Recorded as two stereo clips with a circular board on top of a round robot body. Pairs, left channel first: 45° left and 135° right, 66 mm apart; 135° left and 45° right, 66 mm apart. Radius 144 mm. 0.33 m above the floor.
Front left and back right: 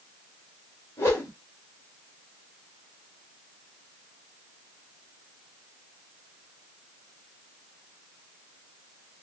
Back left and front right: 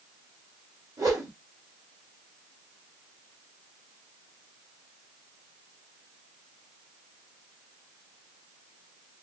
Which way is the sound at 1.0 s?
5° right.